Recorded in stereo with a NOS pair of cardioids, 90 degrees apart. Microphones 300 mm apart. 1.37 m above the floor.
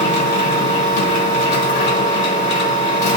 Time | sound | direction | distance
0.0 | a machine running | 35° left | 1.6 m